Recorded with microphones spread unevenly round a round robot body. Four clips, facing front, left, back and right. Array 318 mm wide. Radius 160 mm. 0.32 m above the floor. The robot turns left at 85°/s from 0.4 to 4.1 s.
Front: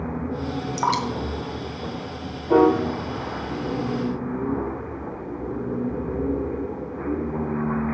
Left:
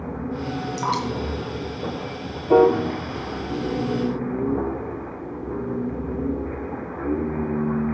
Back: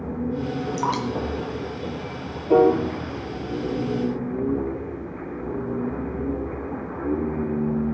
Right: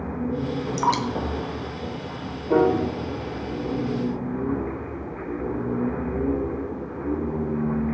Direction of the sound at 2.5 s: 125° left.